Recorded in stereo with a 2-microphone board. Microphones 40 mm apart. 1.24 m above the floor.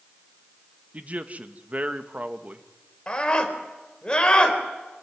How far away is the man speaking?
About 1.6 m.